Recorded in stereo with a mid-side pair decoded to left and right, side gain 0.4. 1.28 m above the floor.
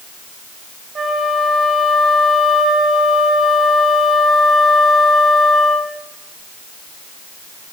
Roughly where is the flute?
Ahead right.